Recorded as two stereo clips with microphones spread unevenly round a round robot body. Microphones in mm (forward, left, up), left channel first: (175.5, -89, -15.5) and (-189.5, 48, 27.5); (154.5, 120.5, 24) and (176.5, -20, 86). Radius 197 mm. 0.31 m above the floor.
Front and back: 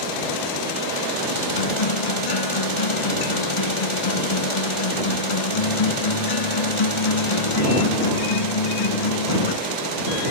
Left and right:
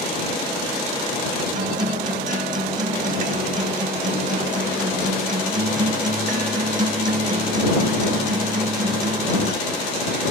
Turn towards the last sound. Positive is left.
turn(degrees=-45)